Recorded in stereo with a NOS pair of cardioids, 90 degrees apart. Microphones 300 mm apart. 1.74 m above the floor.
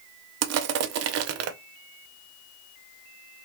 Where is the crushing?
55° right, 0.5 m.